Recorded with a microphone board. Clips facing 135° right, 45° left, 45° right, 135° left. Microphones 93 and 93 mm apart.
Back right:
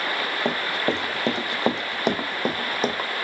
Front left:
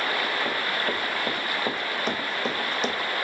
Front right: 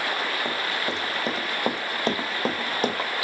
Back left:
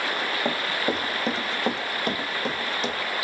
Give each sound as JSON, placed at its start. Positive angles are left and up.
{"t": 0.5, "sound": "running footsteps", "azimuth_deg": -150, "distance_m": 2.5}